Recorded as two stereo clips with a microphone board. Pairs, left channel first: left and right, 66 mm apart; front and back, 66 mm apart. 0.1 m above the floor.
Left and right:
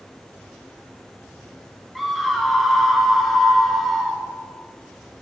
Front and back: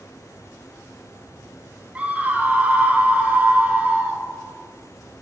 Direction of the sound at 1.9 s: Straight behind.